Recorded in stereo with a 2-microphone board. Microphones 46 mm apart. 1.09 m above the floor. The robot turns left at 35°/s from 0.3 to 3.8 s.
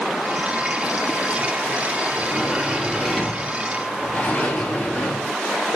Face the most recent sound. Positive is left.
turn(degrees=145)